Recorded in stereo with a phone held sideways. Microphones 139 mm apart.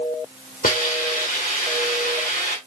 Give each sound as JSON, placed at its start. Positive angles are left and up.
{"t": 0.6, "sound": "a hiss", "side_deg": 85, "distance_m": 2.0}